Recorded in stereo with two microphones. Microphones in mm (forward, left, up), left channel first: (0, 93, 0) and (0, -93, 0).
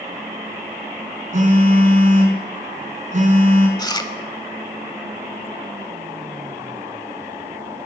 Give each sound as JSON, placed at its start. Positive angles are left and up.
{"t": 1.3, "sound": "a phone buzzing", "side_deg": -40, "distance_m": 2.5}
{"t": 3.8, "sound": "chewing", "side_deg": 20, "distance_m": 1.0}